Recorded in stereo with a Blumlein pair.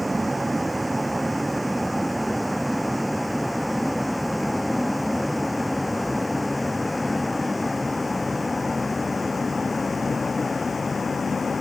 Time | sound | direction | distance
0.0 | a vehicle | 5° right | ?